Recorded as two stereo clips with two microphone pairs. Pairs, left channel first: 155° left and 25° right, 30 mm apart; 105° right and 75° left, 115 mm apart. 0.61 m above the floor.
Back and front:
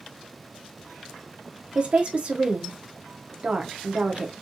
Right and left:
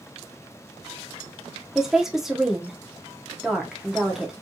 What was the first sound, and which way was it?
A woman speaking, 10° right.